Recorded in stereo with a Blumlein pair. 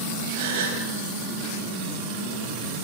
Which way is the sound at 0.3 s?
60° right.